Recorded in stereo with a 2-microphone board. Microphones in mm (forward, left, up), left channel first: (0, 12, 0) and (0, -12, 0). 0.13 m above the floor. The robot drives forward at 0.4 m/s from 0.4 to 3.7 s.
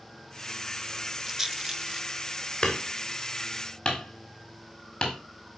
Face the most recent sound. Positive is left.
turn(degrees=30)  # may be behind; listen again after turning